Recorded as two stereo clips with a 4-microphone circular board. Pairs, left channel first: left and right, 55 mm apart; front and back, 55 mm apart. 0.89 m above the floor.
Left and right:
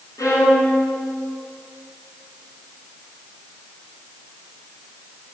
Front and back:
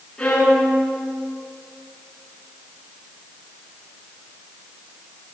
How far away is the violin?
About 9.5 m.